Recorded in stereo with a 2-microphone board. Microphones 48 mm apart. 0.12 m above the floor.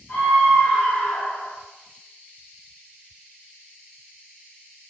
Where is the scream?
35° left (ahead or behind), 1.8 m; by 1.5 s 45° left (ahead or behind), 1.9 m.